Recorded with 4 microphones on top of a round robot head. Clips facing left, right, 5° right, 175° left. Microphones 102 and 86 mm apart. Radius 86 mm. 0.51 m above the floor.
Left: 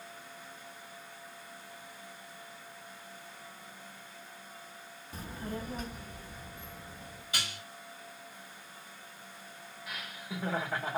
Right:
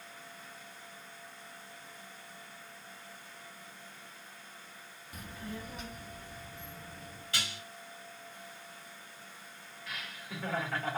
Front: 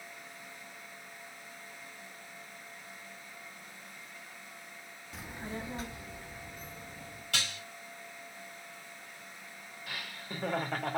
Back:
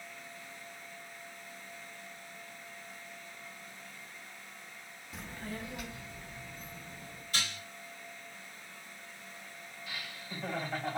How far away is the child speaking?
About 0.5 m.